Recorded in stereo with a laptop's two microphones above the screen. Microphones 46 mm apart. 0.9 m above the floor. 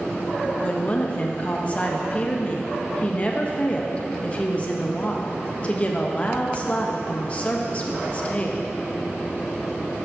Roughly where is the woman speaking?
Left.